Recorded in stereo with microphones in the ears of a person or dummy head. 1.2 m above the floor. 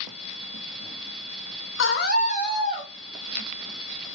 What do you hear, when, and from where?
1.8 s a scream: 55° left (ahead or behind), 0.9 m; by 2.9 s 10° left (ahead or behind), 1.3 m